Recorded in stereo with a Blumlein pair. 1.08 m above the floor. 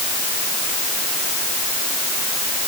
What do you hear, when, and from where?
Only background noise.